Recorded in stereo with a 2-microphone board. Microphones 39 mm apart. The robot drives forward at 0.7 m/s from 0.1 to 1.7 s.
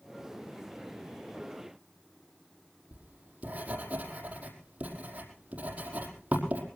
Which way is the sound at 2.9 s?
40° right (ahead or behind).